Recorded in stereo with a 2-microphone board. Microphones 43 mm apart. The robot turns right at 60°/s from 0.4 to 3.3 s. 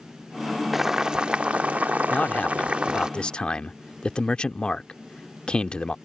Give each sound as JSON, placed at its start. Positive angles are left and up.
{"t": 0.7, "sound": "boiling", "azimuth_deg": -175}
{"t": 2.1, "sound": "a man speaking", "azimuth_deg": 65}